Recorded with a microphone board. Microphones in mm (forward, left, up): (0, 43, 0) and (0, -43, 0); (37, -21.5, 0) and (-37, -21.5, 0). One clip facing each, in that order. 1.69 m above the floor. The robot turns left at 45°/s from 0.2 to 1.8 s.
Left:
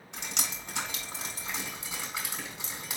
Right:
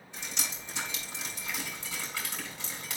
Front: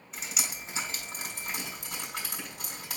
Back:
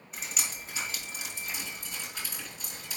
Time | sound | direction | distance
0.1 | dripping | 90° left | 5 m